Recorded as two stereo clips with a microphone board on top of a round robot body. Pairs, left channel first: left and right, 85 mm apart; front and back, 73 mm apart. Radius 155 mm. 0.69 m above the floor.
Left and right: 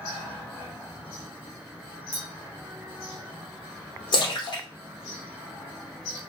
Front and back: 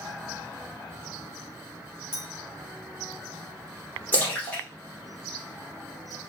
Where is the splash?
70° left, 3 m.